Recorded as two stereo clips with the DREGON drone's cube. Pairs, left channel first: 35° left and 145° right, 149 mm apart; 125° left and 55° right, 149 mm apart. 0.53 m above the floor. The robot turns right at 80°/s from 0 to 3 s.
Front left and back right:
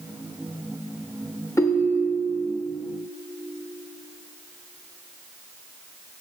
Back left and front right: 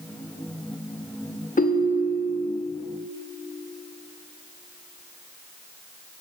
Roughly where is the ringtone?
Left.